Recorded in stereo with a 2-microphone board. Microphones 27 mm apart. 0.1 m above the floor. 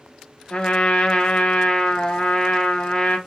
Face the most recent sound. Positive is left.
turn(degrees=35)  # may be behind; listen again after turning